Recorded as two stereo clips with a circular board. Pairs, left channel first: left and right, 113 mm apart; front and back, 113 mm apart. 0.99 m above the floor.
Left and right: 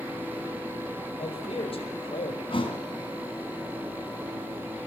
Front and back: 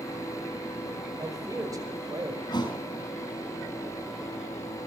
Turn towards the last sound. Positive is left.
turn(degrees=50)